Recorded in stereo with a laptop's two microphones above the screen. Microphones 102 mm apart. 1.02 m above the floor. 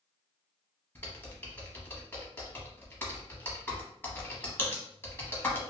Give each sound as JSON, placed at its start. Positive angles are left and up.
{"t": 0.9, "sound": "typing on a keyboard", "side_deg": 15, "distance_m": 0.7}